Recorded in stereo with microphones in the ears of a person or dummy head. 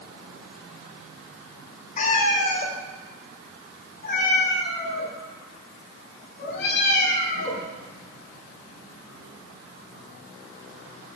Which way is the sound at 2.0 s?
45° left (ahead or behind).